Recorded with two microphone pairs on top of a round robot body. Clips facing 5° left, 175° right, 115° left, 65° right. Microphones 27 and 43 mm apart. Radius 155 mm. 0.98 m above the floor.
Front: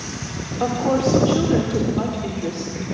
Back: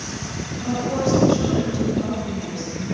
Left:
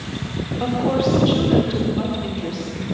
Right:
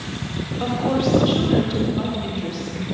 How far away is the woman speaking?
About 3 m.